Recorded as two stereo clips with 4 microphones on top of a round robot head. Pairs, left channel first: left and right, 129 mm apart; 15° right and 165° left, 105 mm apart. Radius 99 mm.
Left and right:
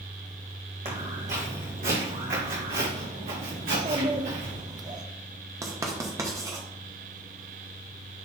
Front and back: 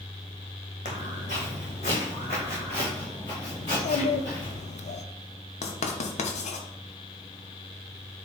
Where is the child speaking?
30° right, 0.6 m.